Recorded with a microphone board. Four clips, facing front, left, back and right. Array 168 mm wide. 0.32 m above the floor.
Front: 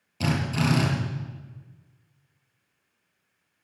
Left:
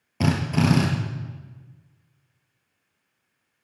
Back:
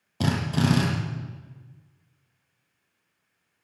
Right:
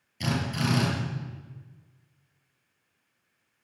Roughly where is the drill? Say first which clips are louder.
Left 7 dB, back 1 dB; behind left.